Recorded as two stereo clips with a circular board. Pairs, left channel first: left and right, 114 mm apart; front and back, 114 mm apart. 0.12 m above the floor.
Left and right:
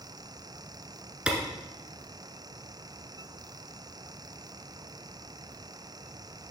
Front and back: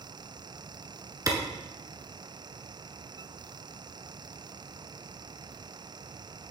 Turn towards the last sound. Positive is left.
turn(degrees=-165)